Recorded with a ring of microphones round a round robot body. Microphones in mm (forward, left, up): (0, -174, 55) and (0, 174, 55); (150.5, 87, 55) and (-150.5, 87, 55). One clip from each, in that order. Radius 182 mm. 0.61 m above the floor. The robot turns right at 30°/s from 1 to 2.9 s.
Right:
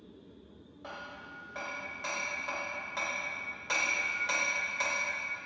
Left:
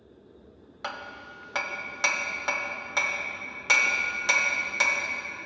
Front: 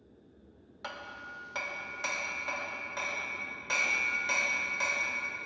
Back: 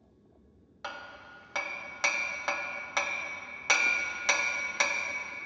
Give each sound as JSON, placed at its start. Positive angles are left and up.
{"t": 0.8, "sound": "hammering", "azimuth_deg": 95, "distance_m": 0.8}